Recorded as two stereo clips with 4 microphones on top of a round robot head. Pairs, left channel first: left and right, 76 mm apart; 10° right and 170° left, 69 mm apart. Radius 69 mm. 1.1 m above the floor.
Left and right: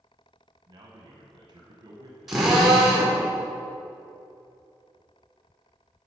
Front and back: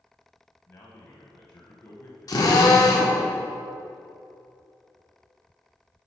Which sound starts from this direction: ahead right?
A man speaking, at 0.7 s.